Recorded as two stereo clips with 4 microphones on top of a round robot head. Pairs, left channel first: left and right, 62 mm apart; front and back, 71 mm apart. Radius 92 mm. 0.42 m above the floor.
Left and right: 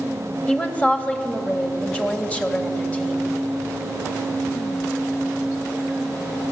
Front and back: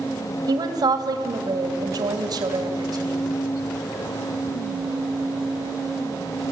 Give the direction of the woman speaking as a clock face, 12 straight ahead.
7 o'clock.